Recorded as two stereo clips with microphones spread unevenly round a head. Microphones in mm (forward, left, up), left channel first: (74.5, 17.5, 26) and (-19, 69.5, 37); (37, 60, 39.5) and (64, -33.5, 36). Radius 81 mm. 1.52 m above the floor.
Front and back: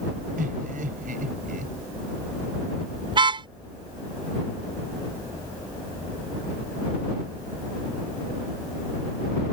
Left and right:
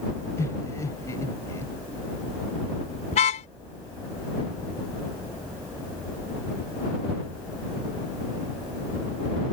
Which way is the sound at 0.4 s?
175° left.